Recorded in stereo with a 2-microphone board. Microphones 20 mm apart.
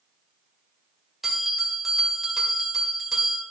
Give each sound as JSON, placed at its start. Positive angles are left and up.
{"t": 1.2, "sound": "a bell", "side_deg": -10, "distance_m": 2.0}